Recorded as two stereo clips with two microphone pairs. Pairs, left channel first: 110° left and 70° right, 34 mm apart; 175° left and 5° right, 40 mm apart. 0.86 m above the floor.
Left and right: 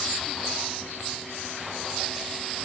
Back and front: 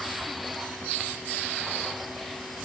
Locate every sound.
Only background noise.